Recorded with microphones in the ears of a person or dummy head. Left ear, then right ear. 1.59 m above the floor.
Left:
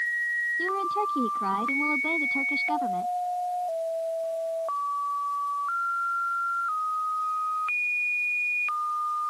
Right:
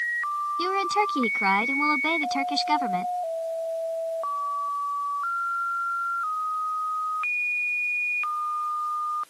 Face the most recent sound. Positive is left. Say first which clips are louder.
# right 3 dB
turn(degrees=-65)  # may be behind; listen again after turning